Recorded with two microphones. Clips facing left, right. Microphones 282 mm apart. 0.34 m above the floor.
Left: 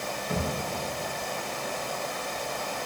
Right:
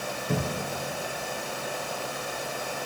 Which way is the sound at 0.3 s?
45° right (ahead or behind).